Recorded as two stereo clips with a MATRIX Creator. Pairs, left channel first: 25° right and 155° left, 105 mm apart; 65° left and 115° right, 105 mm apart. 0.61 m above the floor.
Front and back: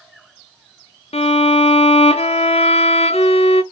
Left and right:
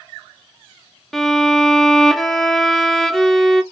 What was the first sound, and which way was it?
A violin, 20° right.